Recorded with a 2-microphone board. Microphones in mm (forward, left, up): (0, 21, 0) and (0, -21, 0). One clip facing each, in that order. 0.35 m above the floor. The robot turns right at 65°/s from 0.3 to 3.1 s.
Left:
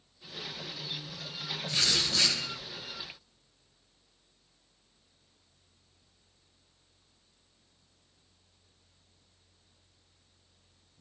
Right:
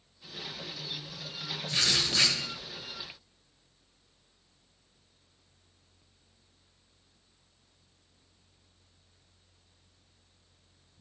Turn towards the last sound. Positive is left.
turn(degrees=-65)